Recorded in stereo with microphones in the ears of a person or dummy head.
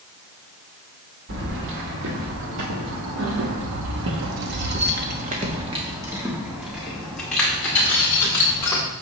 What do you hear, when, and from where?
1.3 s keys jangling: 60° right (ahead or behind), 2.5 m; by 8.8 s 15° left (ahead or behind), 3 m